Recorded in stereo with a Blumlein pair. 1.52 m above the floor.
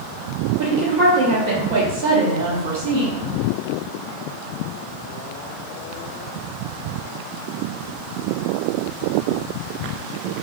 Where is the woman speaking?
65° right, 1.1 m.